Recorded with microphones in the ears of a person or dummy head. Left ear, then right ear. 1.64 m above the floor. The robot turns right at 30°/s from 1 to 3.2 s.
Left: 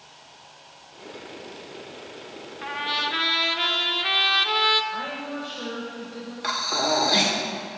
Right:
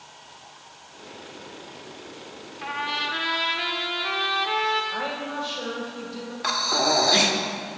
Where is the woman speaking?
25° right (ahead or behind), 1.9 m.